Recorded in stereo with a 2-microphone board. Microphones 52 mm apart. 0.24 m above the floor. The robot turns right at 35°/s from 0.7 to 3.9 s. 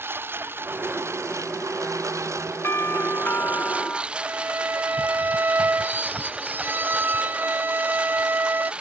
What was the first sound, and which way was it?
A lawn mower, 135° right.